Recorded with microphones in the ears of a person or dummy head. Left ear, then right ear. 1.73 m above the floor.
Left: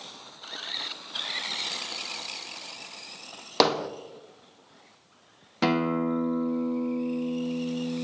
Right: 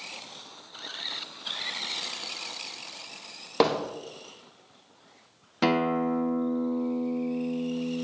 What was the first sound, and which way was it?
Hammering, 35° left (ahead or behind).